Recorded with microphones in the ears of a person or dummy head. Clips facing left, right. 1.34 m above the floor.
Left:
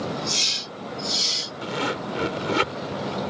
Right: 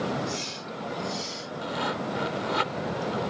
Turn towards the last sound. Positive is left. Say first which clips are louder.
# left 3 dB
turn(degrees=45)  # may be behind; listen again after turning